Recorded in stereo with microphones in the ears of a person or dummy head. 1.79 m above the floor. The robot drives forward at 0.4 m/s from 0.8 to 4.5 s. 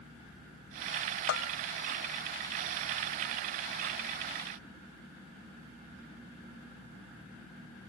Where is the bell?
65° left (ahead or behind).